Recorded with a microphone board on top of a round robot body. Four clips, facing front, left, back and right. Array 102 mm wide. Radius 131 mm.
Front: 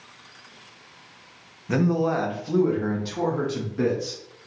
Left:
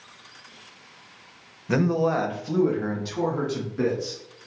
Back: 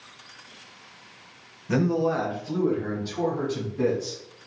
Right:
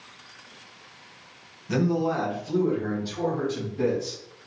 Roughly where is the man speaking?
Left.